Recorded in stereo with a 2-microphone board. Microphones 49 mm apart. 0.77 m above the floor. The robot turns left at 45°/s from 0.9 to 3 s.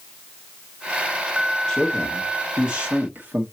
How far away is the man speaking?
About 1.8 m.